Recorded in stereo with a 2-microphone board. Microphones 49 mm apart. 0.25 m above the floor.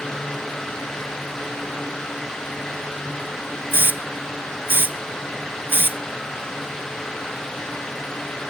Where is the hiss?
45° right (ahead or behind).